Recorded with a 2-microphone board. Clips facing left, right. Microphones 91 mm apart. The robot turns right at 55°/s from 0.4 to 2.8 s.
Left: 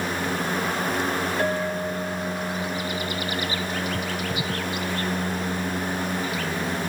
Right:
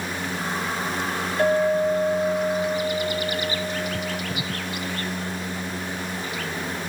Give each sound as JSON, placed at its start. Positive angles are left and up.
{"t": 1.4, "sound": "a clink", "azimuth_deg": -140, "distance_m": 2.5}